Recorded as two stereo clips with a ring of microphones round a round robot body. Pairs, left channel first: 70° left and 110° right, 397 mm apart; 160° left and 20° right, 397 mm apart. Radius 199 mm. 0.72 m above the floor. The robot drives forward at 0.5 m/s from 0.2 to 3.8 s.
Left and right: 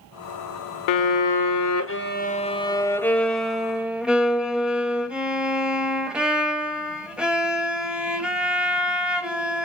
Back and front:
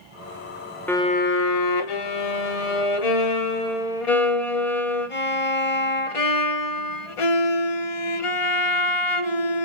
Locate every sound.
0.9 s a violin: 70° left, 0.6 m; by 9.7 s 160° left, 1.4 m